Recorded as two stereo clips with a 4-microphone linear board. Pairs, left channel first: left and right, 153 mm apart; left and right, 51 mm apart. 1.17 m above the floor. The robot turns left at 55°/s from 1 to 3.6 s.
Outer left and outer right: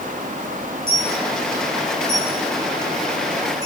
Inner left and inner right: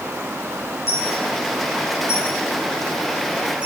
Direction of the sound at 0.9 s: 60° left (ahead or behind).